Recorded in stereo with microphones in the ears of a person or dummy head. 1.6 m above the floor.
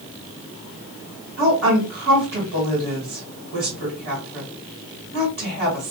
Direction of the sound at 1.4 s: 55° right (ahead or behind).